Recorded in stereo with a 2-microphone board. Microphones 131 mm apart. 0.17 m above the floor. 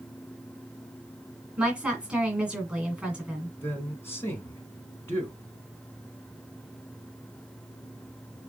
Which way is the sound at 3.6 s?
20° left (ahead or behind).